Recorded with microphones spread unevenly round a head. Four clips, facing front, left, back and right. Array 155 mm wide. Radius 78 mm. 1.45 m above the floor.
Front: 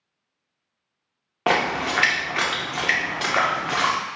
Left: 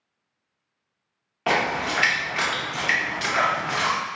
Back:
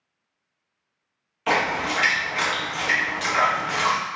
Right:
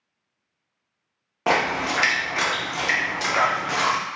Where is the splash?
25° right, 0.6 m.